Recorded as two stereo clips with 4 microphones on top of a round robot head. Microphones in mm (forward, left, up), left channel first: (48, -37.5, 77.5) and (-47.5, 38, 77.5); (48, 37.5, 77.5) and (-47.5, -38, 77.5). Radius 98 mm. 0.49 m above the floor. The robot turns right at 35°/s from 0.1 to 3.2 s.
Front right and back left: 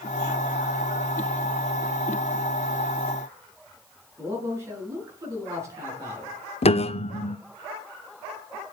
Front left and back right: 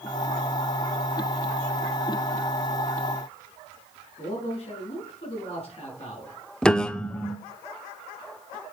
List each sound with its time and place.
4.2 s a man speaking: 80° left, 7 m
6.6 s a piano: 45° right, 0.6 m